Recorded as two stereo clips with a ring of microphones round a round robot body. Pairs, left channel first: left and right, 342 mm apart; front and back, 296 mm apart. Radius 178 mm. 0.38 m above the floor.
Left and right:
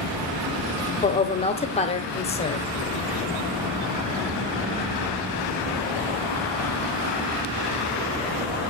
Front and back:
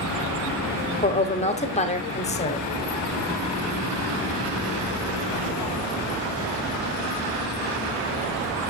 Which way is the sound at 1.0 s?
40° left.